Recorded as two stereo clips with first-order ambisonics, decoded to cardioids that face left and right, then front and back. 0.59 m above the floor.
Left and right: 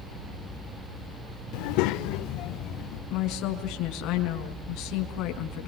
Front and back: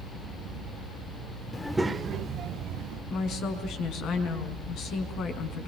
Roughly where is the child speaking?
Left.